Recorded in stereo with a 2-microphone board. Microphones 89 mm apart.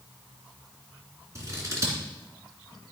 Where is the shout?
No shout in this recording.